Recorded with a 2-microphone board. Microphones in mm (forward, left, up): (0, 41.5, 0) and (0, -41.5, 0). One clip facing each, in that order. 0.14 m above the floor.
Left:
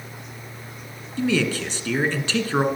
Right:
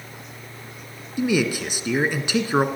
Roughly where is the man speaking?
Centre.